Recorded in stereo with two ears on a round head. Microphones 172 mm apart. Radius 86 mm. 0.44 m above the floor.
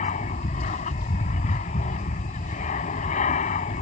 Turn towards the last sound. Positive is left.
turn(degrees=40)  # may be behind; listen again after turning